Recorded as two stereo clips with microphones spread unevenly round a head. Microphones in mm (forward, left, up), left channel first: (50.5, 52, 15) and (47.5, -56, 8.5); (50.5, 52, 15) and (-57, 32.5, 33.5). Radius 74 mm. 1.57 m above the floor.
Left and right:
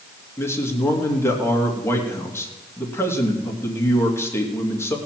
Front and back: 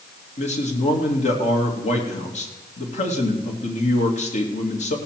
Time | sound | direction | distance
0.4 | a man speaking | 20° left | 2.5 m